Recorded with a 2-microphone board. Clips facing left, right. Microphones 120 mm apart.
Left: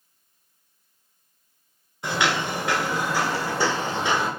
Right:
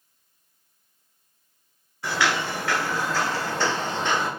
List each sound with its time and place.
2.0 s footsteps: 20° left (ahead or behind), 0.8 m; by 4.3 s 10° left (ahead or behind), 1.3 m